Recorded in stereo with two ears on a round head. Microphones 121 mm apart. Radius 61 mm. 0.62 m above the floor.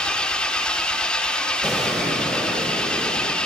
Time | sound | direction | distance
0.0 | an engine running | 5° left (ahead or behind) | 1.2 m
1.6 | an explosion | 5° right (ahead or behind) | 3 m